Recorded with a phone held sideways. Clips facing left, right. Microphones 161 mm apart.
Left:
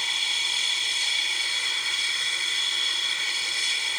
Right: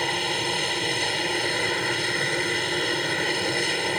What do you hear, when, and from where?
0.0 s an aircraft: 60° right (ahead or behind)